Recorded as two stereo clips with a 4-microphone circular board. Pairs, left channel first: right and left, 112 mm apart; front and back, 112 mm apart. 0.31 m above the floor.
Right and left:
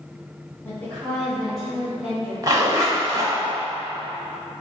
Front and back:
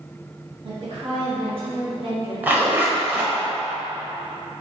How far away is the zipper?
About 0.7 m.